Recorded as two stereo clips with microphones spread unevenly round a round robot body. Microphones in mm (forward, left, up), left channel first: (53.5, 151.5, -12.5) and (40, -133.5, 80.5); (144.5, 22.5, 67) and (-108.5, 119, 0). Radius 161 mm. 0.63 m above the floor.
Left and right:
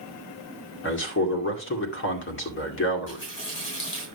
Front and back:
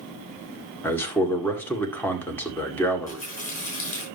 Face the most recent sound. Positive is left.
turn(degrees=40)